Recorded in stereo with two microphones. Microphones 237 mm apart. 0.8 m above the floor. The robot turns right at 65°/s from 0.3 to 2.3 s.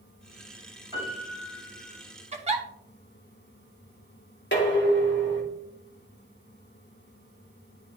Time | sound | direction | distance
0.9 | a piano | 15° right | 3.5 m
2.3 | a giggle | 30° right (ahead or behind) | 1.0 m
4.5 | dishes clattering | 50° left (ahead or behind) | 1.6 m